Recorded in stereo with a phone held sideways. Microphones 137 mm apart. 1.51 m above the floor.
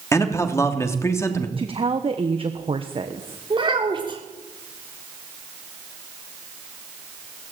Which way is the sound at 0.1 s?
20° left (ahead or behind).